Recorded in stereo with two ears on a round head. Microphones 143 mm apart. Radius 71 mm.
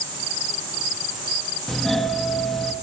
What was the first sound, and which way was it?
A doorbell, centre (ahead or behind).